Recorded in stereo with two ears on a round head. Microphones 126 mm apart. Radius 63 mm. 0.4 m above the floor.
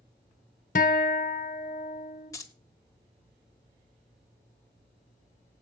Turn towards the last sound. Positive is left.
turn(degrees=25)  # may be behind; listen again after turning